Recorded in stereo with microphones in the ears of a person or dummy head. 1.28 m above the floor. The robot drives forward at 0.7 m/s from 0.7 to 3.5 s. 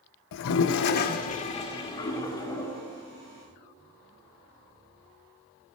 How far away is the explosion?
I don't hear an explosion.